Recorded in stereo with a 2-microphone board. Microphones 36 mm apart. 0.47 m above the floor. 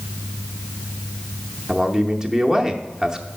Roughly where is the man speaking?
Centre.